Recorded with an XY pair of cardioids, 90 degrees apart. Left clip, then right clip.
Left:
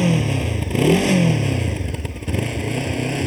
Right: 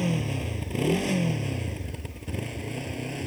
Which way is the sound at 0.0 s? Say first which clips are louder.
Left 9 dB; 60° left.